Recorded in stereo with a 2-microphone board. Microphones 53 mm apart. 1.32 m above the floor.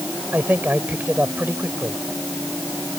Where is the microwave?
No microwave in this recording.